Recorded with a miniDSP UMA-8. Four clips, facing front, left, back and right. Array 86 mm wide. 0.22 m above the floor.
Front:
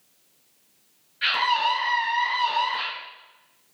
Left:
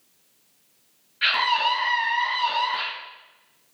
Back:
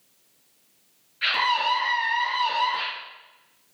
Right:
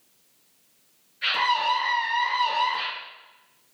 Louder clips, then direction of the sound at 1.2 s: Left 1 dB, front 1 dB; 95° left.